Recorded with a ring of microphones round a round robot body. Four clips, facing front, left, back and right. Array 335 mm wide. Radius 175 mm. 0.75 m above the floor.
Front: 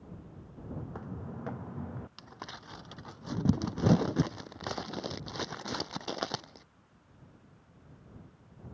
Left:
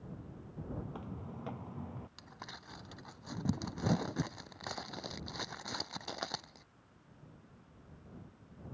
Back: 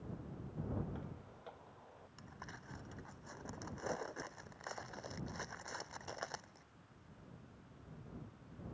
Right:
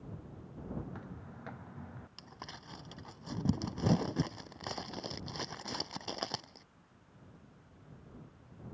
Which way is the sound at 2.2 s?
5° right.